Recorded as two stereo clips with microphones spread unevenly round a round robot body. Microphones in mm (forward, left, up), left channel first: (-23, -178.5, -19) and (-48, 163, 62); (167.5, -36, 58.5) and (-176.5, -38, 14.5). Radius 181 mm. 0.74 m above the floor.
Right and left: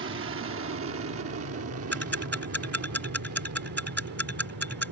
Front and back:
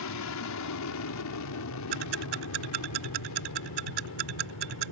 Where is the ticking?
170° right.